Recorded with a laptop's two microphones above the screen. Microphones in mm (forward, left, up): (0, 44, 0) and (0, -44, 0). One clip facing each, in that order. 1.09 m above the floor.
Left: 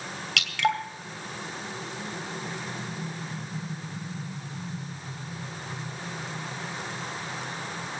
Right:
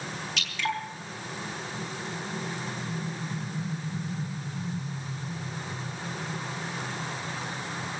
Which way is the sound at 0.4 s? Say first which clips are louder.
Left 6 dB; 75° left (ahead or behind).